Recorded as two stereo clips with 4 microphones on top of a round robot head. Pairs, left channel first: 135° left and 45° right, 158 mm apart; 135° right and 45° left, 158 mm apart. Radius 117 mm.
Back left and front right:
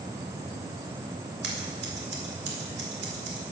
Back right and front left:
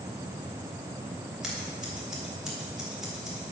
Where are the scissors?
40° right, 1.8 m.